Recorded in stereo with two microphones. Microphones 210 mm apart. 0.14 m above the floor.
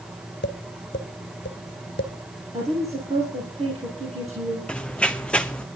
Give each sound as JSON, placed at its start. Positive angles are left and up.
{"t": 0.4, "sound": "tapping", "side_deg": 55, "distance_m": 1.7}
{"t": 2.5, "sound": "a woman speaking", "side_deg": -30, "distance_m": 3.5}
{"t": 4.7, "sound": "running footsteps", "side_deg": 5, "distance_m": 0.7}